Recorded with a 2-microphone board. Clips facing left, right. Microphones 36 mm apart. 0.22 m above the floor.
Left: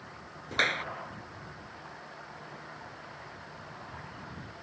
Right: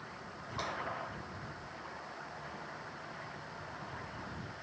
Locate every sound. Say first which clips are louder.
0.5 s a clap: left 11 dB; 70° left (ahead or behind)